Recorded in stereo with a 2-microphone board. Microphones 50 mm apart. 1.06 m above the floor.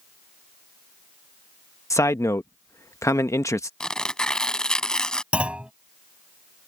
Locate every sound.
1.9 s a man speaking: 70° left (ahead or behind)
3.8 s tearing paper: 15° left (ahead or behind)
5.3 s a clunk: 20° right (ahead or behind)